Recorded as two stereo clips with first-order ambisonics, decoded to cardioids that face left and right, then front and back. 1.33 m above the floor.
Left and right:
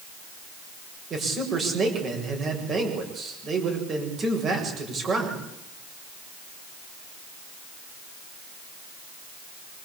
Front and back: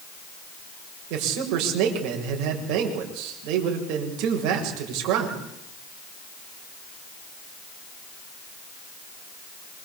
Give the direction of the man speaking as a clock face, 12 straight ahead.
5 o'clock.